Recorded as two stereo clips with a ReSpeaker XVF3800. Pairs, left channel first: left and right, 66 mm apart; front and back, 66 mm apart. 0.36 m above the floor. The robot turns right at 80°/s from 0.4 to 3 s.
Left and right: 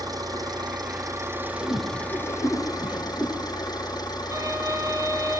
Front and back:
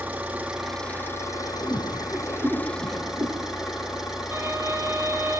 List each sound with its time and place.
0.0 s an engine running: 110° right, 7.5 m; by 5.4 s 100° left, 7.5 m
1.6 s a whoosh: 60° left, 6.5 m; by 3.3 s 170° left, 6.5 m
4.3 s a violin: 130° right, 7.5 m